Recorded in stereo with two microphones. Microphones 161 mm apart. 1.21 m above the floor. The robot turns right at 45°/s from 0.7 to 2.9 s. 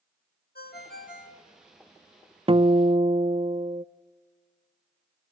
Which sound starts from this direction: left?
A ringtone, at 0.6 s.